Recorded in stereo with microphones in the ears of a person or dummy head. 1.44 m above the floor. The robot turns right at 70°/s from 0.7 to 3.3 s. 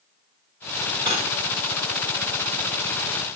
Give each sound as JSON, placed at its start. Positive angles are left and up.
{"t": 1.1, "sound": "cutlery clinking", "side_deg": -25, "distance_m": 2.5}